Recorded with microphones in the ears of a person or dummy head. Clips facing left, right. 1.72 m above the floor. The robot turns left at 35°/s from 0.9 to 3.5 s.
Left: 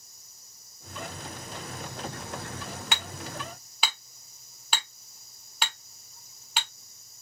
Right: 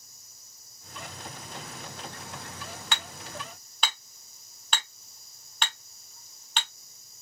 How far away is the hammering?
About 0.9 m.